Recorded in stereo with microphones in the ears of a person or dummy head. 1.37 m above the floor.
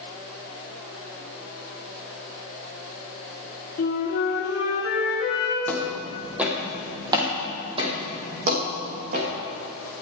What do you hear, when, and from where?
3.8 s a flute: 50° left (ahead or behind), 3.5 m
5.7 s footsteps: 5° left (ahead or behind), 2.5 m; by 9.3 s 55° right (ahead or behind), 5 m